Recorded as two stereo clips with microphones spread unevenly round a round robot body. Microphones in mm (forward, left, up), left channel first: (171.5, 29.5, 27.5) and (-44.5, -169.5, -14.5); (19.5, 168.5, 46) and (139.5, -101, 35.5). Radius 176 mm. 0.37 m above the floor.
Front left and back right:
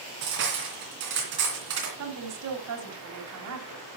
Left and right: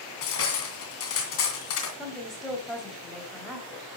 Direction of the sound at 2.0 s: 155° right.